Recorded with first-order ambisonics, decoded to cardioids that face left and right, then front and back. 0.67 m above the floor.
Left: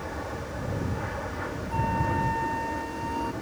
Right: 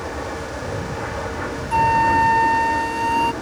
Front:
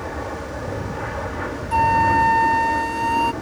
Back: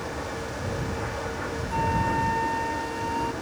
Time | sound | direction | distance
0.0 | an aircraft | 45° right | ?
1.7 | a flute | 50° right | ?